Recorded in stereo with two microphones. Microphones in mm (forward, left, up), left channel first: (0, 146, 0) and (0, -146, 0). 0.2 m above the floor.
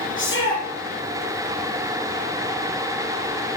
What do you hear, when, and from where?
0.2 s a shout: 40° left (ahead or behind), 5 m